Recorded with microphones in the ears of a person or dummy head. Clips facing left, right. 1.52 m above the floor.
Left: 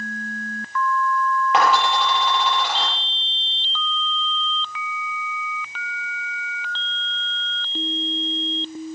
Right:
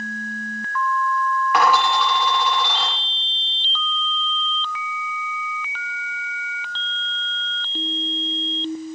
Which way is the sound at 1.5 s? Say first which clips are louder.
Right 1 dB; 30° left (ahead or behind).